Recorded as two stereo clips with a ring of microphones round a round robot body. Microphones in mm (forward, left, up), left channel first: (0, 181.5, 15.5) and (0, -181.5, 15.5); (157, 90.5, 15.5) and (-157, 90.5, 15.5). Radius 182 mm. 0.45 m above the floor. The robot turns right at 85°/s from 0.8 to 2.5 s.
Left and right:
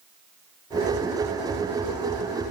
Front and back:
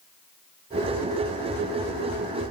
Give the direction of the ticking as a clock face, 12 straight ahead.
No ticking in this recording.